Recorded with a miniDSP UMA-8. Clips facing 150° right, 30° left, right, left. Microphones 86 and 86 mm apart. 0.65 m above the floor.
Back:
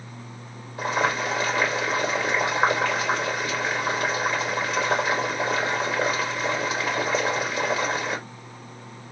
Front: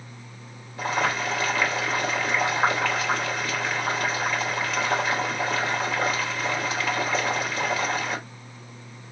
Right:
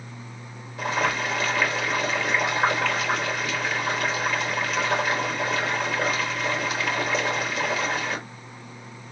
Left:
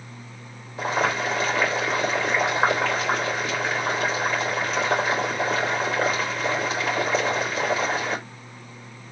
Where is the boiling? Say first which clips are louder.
Back 1 dB, left 2 dB; 140° left, 2.5 m.